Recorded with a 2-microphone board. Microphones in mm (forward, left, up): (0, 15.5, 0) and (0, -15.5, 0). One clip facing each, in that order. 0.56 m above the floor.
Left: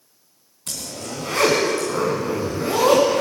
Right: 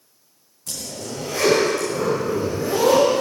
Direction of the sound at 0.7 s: 60° left (ahead or behind).